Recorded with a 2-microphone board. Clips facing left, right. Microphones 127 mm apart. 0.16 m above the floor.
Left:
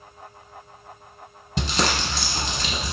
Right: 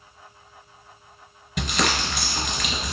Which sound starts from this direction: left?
Crumpling, at 1.6 s.